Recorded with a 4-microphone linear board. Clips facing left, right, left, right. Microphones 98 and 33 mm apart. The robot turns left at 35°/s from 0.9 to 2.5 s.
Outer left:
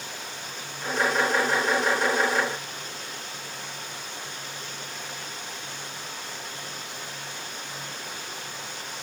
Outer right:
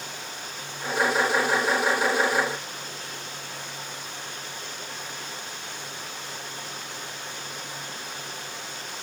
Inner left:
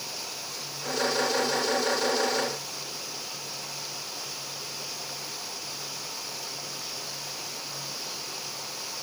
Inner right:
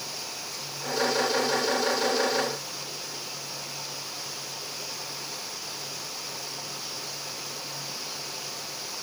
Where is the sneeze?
I don't hear a sneeze.